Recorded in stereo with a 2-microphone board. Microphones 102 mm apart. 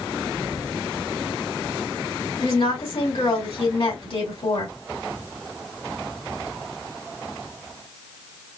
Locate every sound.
2.4 s a woman speaking: 65° left (ahead or behind), 3 m